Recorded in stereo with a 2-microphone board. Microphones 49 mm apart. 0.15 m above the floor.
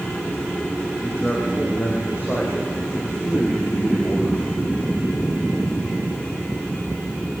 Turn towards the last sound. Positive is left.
turn(degrees=40)  # may be behind; listen again after turning